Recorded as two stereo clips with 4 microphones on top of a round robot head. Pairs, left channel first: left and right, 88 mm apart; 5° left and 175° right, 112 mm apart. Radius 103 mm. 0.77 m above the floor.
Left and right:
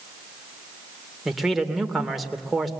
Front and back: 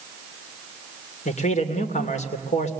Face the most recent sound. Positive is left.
turn(degrees=0)